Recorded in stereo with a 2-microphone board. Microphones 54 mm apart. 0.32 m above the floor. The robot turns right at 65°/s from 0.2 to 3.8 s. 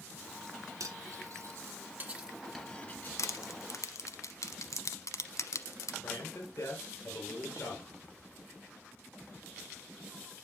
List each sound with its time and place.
0.8 s cutlery clinking: 65° right (ahead or behind), 2 m; by 3.1 s 35° left (ahead or behind), 2 m
3.2 s crushing: 65° left (ahead or behind), 0.9 m; by 5.9 s 70° left (ahead or behind), 0.9 m
6.0 s a man speaking: 50° left (ahead or behind), 5.5 m